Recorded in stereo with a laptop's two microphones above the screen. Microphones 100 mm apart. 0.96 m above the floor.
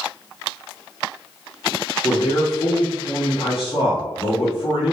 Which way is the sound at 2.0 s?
65° left (ahead or behind).